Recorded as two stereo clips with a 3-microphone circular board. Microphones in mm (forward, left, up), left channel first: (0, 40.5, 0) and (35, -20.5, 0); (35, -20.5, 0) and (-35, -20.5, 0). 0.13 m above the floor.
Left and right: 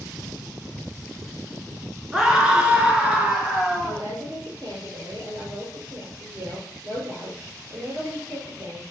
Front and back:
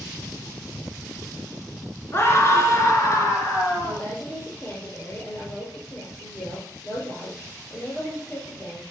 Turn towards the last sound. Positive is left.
turn(degrees=-45)